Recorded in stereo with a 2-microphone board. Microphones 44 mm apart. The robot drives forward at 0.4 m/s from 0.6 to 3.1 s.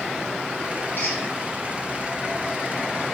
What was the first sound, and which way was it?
A squeak, 45° left (ahead or behind).